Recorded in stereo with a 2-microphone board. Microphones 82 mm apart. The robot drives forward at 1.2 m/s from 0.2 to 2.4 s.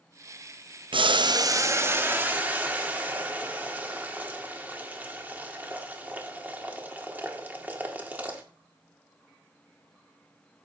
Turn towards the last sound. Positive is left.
turn(degrees=-20)  # may be behind; listen again after turning